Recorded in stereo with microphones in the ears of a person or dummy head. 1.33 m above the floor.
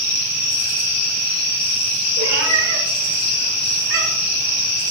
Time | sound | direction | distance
2.2 | a cat meowing | 75° right (ahead or behind) | 7 m